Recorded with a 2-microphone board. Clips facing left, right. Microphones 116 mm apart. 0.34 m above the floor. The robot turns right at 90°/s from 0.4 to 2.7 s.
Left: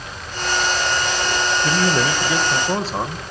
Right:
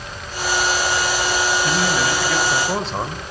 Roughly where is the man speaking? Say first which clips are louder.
Left 1 dB; left.